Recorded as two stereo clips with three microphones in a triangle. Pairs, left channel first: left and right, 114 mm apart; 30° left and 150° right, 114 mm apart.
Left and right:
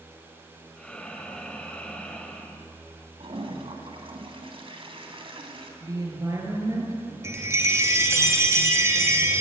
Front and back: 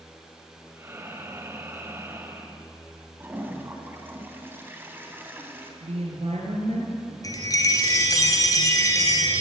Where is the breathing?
160° left, 1.7 m.